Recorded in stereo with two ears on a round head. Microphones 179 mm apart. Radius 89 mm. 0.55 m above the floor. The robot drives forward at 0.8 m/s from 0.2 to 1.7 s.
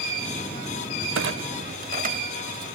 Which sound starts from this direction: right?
A clunk, at 1.1 s.